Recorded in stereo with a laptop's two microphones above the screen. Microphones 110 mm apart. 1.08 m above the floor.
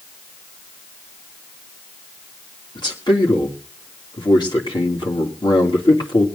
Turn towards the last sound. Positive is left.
turn(degrees=40)  # may be behind; listen again after turning